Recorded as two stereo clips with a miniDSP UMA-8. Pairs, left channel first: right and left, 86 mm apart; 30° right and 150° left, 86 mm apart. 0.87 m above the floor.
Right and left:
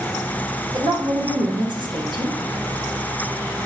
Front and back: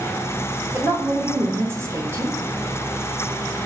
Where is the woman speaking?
95° left, 0.8 m.